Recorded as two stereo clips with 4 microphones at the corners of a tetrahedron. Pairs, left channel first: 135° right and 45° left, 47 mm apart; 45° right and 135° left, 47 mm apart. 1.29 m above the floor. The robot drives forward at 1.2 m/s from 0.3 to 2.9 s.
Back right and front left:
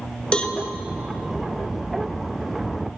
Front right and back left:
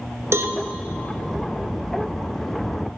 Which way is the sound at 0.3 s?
155° left.